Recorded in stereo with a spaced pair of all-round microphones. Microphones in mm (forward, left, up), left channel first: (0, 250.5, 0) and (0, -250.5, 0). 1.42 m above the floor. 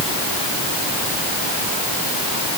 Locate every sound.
Only background noise.